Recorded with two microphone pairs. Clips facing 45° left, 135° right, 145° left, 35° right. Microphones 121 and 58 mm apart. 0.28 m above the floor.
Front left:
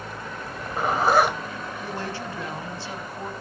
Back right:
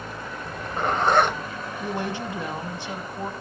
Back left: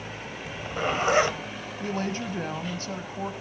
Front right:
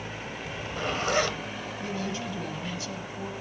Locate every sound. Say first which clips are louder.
0.4 s a zipper: even, back left 4 dB; 125° left, 1.5 m
1.8 s a woman speaking: back right 5 dB, back left 4 dB; 165° left, 1.4 m